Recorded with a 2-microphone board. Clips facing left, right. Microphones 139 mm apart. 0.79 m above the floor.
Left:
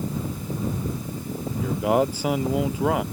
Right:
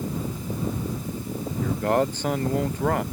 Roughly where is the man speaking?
Centre.